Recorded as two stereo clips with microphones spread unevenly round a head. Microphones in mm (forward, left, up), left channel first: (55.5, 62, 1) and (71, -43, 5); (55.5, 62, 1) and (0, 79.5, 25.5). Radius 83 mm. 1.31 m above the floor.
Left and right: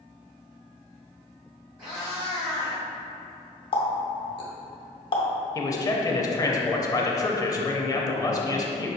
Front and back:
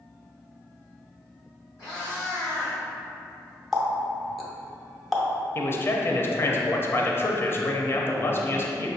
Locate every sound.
1.8 s a cat meowing: 100° right, 1.6 m
3.7 s a running tap: 95° left, 0.7 m
5.5 s a man speaking: 40° left, 0.5 m